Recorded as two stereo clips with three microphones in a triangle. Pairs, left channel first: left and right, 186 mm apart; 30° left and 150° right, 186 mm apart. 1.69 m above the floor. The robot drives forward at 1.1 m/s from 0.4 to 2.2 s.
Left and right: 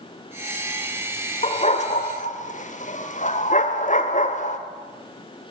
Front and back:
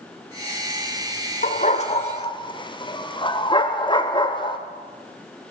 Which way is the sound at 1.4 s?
50° left.